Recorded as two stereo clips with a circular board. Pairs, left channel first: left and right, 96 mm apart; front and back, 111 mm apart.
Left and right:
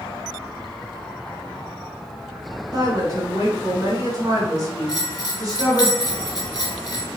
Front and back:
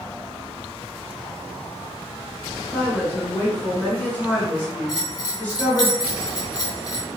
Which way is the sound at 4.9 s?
50° left.